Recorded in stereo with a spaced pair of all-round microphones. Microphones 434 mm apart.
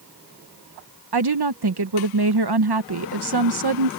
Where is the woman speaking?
60° right (ahead or behind).